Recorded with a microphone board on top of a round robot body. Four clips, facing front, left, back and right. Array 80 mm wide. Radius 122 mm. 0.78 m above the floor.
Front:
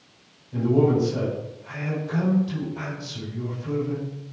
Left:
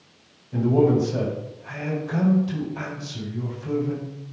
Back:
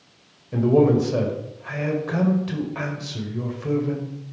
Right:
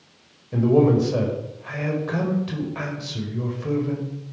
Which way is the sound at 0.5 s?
140° right.